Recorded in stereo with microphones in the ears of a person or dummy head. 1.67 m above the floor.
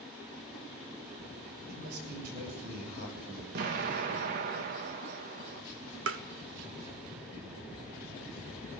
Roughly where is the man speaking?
Right.